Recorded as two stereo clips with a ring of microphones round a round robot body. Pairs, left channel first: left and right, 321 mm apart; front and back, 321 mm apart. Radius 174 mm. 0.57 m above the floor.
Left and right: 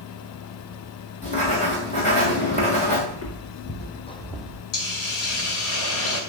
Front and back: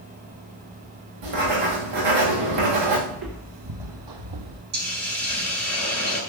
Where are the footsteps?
130° left, 2.5 m; by 4.6 s 170° right, 1.6 m.